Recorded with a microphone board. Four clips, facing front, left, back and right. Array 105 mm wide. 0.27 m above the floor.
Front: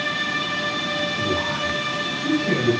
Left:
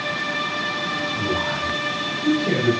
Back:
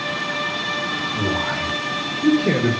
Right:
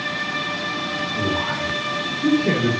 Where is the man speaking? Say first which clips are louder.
Right 2 dB, back 1 dB; 155° right, 6 m.